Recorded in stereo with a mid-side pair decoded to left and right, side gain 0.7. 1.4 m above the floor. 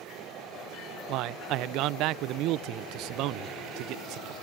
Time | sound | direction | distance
1.1 | a man speaking | 60° right | 0.5 m